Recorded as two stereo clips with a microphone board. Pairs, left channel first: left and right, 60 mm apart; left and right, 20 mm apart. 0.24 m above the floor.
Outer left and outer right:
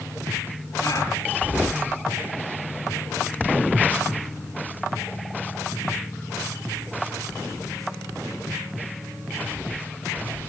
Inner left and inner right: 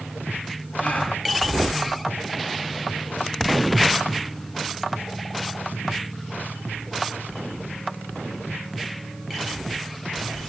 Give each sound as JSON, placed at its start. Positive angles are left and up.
{"t": 0.8, "sound": "a gasp", "side_deg": 65, "distance_m": 6.5}